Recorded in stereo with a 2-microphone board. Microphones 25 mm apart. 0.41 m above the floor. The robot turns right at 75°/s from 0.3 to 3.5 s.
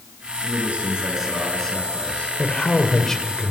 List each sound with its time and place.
0.4 s a man speaking: 80° right, 6 m; by 2.3 s 60° left, 6 m
2.4 s a man speaking: 100° left, 1.8 m; by 3.5 s 175° right, 1.8 m